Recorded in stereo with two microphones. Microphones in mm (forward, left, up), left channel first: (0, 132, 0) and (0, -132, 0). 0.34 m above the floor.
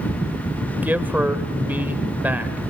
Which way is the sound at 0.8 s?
5° right (ahead or behind).